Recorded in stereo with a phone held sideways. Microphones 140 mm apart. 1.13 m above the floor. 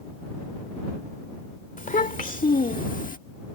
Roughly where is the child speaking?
Left.